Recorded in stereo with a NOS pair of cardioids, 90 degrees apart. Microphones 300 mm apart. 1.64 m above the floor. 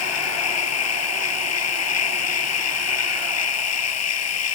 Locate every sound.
0.0 s a machine running: 55° left